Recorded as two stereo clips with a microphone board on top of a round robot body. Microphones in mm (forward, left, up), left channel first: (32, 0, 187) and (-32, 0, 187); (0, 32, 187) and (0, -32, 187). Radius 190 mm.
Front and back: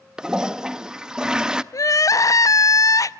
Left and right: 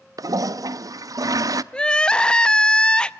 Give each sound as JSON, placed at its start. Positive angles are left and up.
{"t": 0.2, "sound": "a toilet flushing", "azimuth_deg": -100, "distance_m": 0.7}
{"t": 1.7, "sound": "crying", "azimuth_deg": 15, "distance_m": 0.7}